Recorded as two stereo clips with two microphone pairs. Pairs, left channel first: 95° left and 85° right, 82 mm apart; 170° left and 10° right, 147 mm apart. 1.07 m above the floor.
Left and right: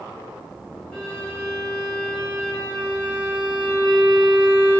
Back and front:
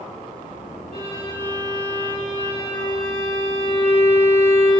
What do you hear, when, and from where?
0.9 s a violin: 170° left, 3.5 m